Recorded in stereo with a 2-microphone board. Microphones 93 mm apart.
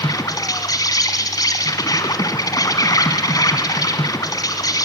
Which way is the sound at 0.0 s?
45° left (ahead or behind).